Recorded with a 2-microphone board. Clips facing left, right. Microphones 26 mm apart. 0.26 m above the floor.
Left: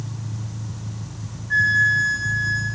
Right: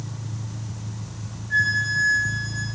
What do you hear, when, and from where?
1.5 s a flute: 30° left (ahead or behind), 5.5 m